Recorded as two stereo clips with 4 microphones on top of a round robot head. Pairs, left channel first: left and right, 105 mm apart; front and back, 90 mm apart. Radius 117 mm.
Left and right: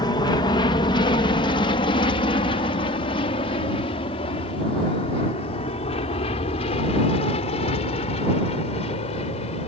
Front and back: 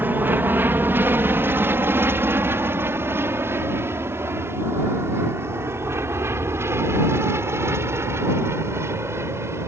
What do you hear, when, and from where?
0.0 s an aircraft: 120° left